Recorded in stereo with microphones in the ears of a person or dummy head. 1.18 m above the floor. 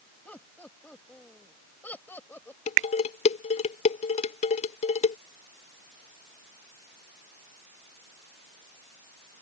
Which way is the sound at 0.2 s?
5° left (ahead or behind).